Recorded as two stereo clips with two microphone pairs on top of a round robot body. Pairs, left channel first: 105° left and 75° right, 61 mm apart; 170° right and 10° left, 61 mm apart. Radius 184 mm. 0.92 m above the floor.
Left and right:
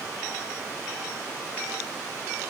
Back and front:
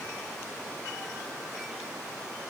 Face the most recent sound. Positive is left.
No sound to turn to.